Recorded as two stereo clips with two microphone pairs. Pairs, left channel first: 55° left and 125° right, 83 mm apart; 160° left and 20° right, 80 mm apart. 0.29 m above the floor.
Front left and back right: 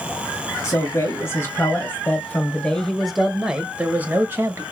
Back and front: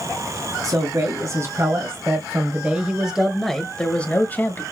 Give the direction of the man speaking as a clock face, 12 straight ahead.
12 o'clock.